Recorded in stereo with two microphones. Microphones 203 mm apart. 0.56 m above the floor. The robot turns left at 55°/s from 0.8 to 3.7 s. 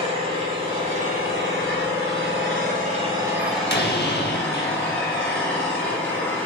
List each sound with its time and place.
0.0 s an engine running: 30° right, 1.6 m; by 6.5 s 170° left, 1.6 m
3.4 s a door slam: 45° left (ahead or behind), 0.9 m; by 6.0 s 55° left (ahead or behind), 0.9 m